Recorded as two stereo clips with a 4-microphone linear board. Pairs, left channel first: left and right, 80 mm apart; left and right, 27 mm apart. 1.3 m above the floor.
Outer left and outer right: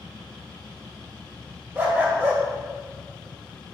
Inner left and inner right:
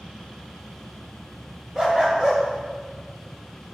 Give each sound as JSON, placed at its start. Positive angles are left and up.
{"t": 1.8, "sound": "a dog barking", "side_deg": -25, "distance_m": 1.5}